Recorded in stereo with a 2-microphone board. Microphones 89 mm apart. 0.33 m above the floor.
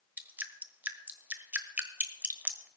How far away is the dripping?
About 1.2 m.